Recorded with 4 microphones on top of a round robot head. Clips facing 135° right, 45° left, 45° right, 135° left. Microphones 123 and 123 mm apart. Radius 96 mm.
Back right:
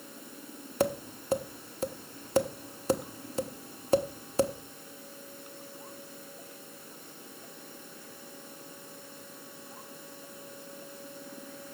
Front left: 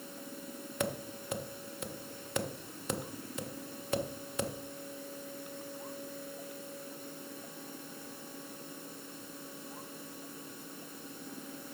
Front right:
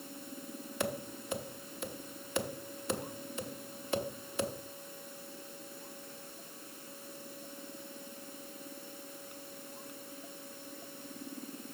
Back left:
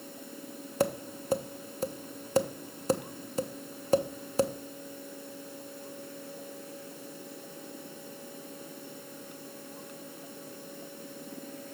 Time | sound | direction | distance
0.8 | tapping | straight behind | 1.0 m